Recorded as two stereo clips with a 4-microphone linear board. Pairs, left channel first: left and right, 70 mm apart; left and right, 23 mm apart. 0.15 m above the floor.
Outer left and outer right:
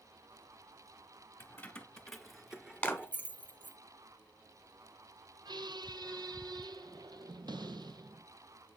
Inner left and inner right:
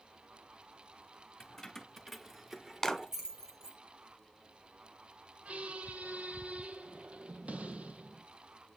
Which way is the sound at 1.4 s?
25° left (ahead or behind).